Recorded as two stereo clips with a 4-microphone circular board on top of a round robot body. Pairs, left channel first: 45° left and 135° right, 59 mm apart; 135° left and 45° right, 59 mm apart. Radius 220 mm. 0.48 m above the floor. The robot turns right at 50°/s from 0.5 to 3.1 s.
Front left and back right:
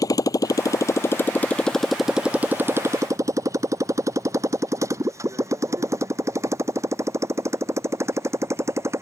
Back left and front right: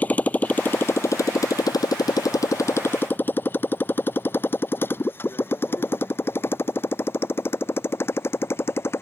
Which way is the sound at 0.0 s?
70° left.